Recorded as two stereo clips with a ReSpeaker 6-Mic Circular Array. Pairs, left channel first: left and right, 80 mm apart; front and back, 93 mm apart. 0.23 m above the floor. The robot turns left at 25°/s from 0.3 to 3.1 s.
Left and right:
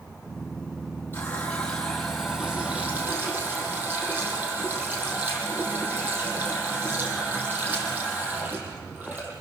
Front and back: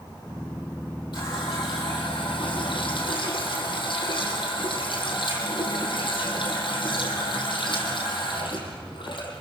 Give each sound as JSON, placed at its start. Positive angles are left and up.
{"t": 1.1, "sound": "a running tap", "azimuth_deg": 25, "distance_m": 5.5}